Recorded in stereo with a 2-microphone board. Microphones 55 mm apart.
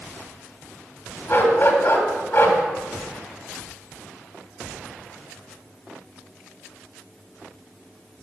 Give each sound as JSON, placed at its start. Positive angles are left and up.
{"t": 1.3, "sound": "a dog barking", "side_deg": 40, "distance_m": 1.9}